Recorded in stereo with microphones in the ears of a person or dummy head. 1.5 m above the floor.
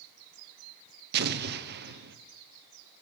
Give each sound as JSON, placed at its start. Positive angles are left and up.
{"t": 1.1, "sound": "an explosion", "side_deg": -55, "distance_m": 0.9}